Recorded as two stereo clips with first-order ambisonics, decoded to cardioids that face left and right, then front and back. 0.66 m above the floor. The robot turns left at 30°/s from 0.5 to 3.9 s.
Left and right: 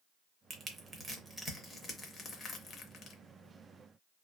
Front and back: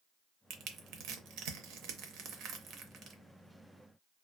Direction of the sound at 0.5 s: 150° right.